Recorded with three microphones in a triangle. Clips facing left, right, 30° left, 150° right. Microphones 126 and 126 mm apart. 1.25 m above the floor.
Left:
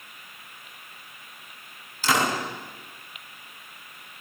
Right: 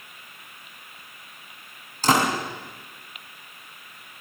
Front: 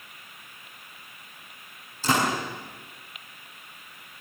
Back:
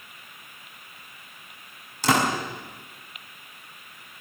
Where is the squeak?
I don't hear a squeak.